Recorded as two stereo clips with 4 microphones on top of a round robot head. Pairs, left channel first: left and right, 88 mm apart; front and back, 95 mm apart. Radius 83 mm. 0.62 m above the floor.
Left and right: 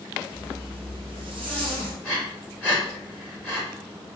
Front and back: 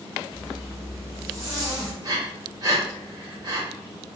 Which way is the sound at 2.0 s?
155° left.